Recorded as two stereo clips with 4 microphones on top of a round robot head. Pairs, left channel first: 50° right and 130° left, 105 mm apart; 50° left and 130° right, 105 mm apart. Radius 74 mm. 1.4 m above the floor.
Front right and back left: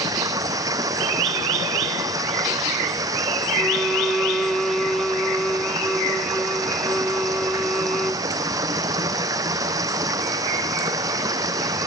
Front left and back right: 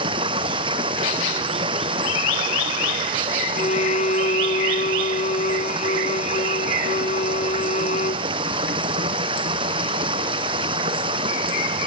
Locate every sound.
0.0 s running water: 170° right
3.5 s a violin: 40° left